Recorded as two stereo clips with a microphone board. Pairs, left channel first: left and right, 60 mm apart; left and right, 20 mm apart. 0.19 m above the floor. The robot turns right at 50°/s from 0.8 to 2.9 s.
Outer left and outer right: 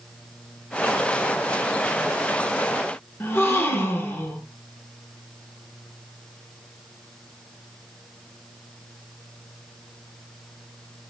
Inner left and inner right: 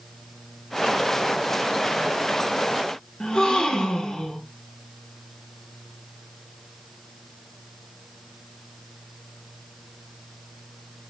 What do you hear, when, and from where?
3.2 s a gasp: 40° left (ahead or behind), 0.5 m